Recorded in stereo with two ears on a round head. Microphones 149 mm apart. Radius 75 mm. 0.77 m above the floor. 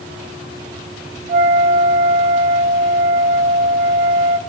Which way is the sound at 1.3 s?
45° right (ahead or behind).